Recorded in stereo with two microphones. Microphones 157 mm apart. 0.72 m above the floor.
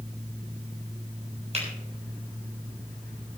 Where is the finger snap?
45° right (ahead or behind), 7 m.